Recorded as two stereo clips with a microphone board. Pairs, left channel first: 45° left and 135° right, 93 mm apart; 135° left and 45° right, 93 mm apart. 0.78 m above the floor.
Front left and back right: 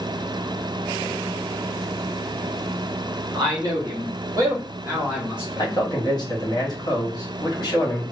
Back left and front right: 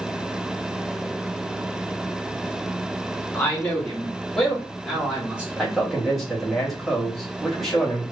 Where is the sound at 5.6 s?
45° left, 1.0 m.